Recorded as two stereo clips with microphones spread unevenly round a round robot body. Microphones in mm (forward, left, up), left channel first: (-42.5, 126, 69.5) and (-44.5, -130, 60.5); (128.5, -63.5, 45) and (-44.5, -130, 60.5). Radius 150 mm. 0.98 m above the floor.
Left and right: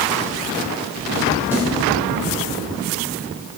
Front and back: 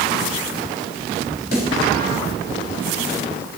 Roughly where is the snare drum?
Ahead.